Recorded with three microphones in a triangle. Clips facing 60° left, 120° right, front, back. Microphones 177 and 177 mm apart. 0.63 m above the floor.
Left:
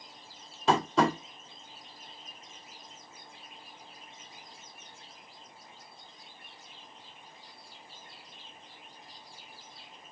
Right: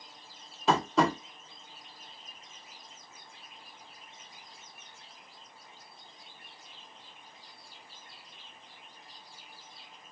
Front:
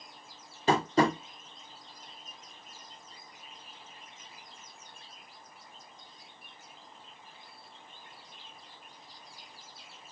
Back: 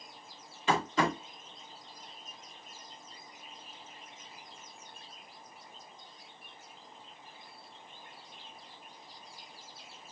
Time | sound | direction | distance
0.7 | tapping | 30° right | 1.7 m